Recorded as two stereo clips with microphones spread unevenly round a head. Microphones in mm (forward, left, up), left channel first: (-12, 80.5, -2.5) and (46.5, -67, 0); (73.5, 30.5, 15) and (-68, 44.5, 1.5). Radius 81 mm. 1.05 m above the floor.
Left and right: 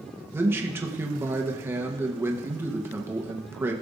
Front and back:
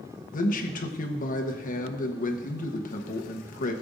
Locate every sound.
0.3 s a man speaking: 5° left, 1.0 m